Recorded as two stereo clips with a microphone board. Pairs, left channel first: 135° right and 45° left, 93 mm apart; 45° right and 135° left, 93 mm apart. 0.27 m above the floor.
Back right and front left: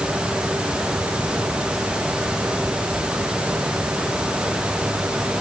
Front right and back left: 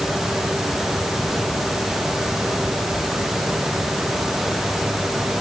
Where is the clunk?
I don't hear a clunk.